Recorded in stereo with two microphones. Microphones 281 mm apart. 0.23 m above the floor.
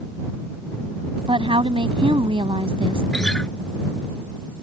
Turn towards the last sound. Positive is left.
turn(degrees=5)  # may be behind; listen again after turning